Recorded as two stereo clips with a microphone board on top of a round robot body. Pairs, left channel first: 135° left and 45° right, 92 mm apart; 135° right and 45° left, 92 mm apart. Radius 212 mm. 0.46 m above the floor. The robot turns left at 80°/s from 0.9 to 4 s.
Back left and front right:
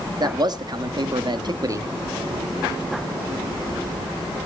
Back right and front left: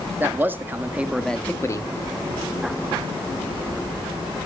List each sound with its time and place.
0.2 s a man speaking: 20° right, 1.5 m; by 1.9 s 100° right, 1.5 m